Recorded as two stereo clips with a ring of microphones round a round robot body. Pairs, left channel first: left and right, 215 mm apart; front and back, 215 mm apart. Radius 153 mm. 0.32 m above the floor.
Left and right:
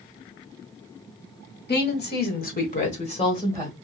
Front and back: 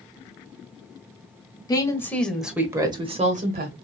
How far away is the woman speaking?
About 1.3 m.